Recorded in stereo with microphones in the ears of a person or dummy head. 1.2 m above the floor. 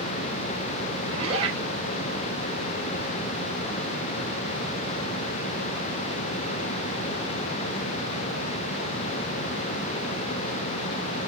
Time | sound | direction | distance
1.1 | a zipper | 40° right (ahead or behind) | 4.5 m